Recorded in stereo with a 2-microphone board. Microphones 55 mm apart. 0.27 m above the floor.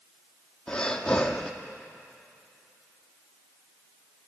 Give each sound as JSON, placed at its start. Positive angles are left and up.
{"t": 0.7, "sound": "breathing", "side_deg": 15, "distance_m": 1.8}